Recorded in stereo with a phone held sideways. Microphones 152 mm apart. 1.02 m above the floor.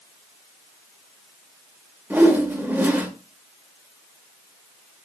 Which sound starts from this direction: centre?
A whoosh, at 2.1 s.